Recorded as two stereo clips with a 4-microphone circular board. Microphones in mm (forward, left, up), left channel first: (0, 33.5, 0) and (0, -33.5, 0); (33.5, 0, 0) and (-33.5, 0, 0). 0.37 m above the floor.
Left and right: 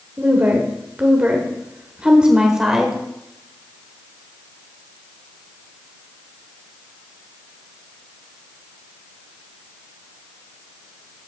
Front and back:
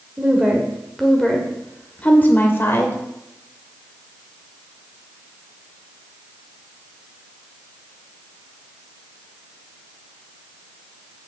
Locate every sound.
0.2 s a woman speaking: 115° right, 1.3 m; by 3.0 s 10° right, 1.4 m